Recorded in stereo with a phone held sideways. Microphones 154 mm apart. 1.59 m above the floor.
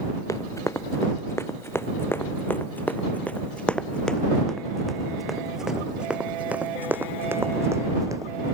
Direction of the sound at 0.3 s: 20° left (ahead or behind).